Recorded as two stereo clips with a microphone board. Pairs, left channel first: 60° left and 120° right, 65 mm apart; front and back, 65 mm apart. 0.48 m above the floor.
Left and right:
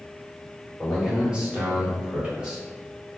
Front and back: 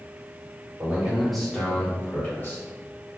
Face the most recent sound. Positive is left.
turn(degrees=-50)